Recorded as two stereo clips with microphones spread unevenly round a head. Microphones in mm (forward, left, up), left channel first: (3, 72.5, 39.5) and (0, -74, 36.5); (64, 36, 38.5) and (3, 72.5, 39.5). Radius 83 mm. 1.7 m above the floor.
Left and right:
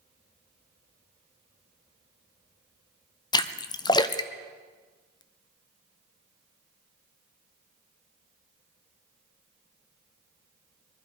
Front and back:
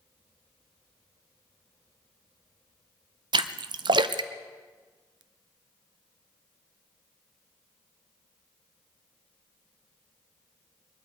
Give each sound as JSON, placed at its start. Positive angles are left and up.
{"t": 3.3, "sound": "a splash", "azimuth_deg": 150, "distance_m": 0.6}